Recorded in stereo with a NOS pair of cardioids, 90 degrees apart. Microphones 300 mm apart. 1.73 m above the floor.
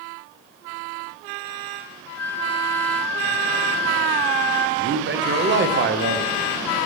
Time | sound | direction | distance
2.2 | a flute | 10° left | 0.8 m
4.8 | a man speaking | 40° right | 1.0 m